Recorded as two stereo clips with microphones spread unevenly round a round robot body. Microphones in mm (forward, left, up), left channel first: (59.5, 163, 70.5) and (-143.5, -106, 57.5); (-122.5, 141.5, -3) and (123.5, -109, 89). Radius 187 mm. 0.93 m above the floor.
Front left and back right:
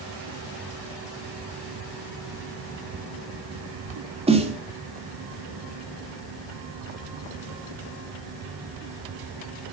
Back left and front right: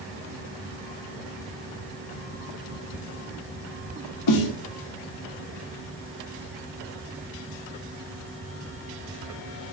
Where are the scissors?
I don't hear scissors.